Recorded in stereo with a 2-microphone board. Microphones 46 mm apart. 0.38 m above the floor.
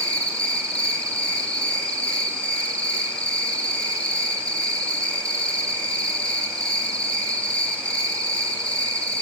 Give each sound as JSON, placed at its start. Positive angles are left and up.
{"t": 0.0, "sound": "an insect", "side_deg": 20, "distance_m": 3.0}